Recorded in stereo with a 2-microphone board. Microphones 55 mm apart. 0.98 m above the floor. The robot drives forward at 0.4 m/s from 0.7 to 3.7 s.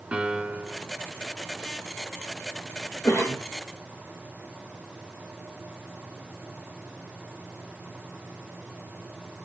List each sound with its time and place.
0.1 s a piano: 20° right (ahead or behind), 3 m
3.0 s a cough: 45° left (ahead or behind), 4.5 m